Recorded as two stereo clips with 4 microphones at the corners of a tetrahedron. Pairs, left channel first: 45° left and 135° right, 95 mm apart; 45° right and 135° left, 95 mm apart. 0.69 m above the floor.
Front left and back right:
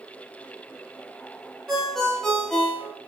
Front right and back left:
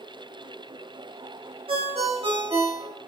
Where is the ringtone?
130° left, 1.0 m.